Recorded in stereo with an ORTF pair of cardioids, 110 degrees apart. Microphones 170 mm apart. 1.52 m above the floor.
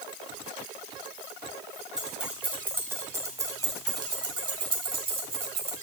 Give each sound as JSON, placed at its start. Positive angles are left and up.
{"t": 2.0, "sound": "keys jangling", "azimuth_deg": -5, "distance_m": 3.0}